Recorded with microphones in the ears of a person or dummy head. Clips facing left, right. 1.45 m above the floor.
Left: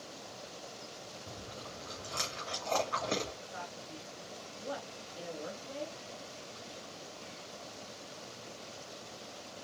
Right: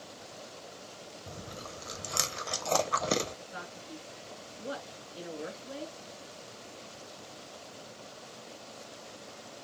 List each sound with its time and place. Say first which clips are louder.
1.3 s chewing: right 4 dB; 55° right (ahead or behind), 0.8 m
3.5 s a man speaking: right 1 dB; 25° right (ahead or behind), 2.5 m